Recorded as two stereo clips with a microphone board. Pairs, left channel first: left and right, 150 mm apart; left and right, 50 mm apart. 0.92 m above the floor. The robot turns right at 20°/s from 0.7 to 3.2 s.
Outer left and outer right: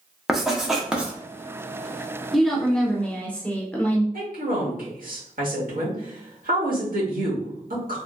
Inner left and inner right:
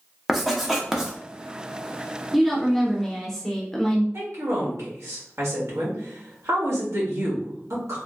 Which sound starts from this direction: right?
A woman speaking, at 4.1 s.